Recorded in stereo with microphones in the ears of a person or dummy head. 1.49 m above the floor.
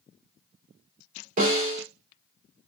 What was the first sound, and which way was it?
A snare drum, 45° right (ahead or behind).